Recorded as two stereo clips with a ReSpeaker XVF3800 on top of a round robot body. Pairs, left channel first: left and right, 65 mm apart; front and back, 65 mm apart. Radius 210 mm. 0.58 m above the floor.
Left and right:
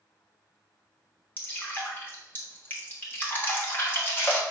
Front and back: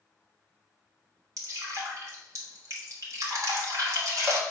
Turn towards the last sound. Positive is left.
turn(degrees=150)